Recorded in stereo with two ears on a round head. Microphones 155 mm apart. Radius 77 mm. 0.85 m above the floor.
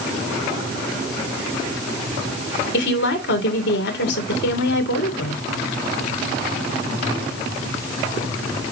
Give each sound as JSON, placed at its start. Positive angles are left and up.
{"t": 2.7, "sound": "a woman speaking", "side_deg": 65, "distance_m": 3.0}